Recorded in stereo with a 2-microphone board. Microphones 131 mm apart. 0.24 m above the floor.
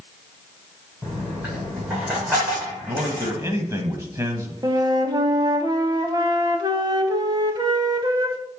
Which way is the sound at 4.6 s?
30° right (ahead or behind).